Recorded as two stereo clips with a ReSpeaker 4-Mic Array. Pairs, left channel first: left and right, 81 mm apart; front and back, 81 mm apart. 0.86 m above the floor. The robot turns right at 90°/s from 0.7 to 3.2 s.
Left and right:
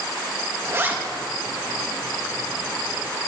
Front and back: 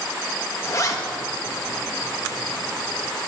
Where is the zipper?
45° right, 1.2 m; by 1.0 s 20° right, 1.2 m.